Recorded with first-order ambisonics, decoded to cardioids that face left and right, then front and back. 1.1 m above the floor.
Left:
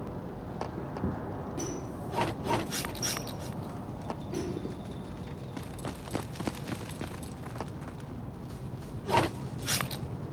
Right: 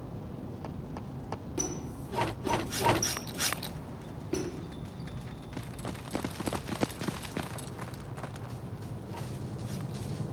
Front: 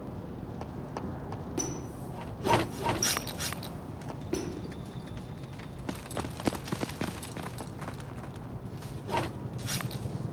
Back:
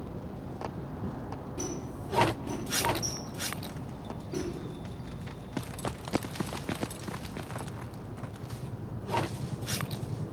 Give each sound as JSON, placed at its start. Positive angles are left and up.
{"t": 1.6, "sound": "a squeak", "azimuth_deg": -30, "distance_m": 0.5}